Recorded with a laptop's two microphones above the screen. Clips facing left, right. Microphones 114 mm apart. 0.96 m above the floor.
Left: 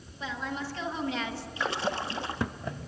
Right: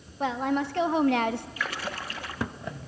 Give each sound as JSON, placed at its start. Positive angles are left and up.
{"t": 0.2, "sound": "a woman speaking", "side_deg": -60, "distance_m": 1.4}
{"t": 1.6, "sound": "a splash", "side_deg": 25, "distance_m": 0.9}